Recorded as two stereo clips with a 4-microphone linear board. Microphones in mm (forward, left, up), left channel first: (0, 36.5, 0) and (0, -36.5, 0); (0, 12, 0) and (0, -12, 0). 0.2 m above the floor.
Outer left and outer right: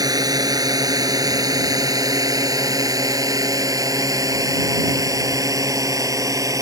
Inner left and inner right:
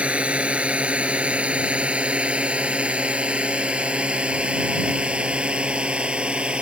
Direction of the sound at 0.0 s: 60° right (ahead or behind).